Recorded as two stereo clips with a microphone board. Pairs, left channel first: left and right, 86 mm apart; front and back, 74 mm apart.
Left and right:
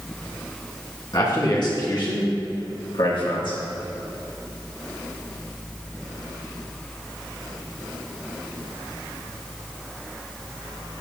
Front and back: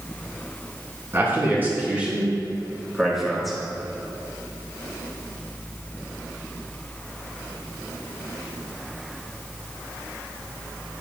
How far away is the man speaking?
About 3 m.